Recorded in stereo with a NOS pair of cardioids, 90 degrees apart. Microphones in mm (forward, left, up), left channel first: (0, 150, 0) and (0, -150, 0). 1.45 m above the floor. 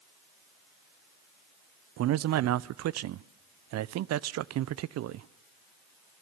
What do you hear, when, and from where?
2.0 s a man speaking: 60° right, 0.6 m